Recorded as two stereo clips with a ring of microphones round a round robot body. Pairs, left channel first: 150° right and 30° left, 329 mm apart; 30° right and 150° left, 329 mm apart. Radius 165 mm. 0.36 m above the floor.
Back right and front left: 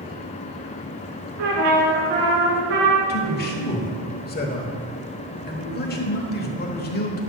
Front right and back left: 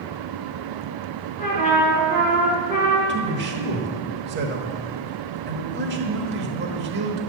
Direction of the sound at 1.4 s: 40° left.